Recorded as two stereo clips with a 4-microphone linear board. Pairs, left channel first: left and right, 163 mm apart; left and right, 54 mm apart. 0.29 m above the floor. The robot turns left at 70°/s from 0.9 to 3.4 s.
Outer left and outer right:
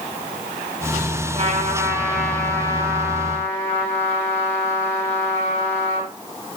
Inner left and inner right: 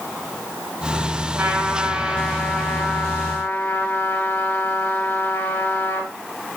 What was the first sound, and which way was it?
A trumpet, 120° right.